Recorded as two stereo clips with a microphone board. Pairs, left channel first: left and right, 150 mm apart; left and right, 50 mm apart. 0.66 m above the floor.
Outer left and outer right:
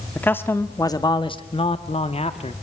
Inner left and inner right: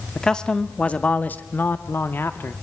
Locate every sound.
0.1 s a man speaking: 10° left (ahead or behind), 1.8 m; by 2.5 s 45° left (ahead or behind), 1.9 m